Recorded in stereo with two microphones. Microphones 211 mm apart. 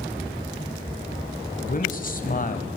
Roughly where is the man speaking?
Left.